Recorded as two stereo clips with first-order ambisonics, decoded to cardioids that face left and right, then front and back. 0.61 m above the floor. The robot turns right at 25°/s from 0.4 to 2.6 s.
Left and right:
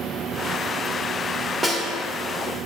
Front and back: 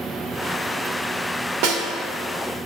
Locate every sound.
1.6 s a snare drum: 175° right, 1.4 m; by 1.8 s 170° right, 1.4 m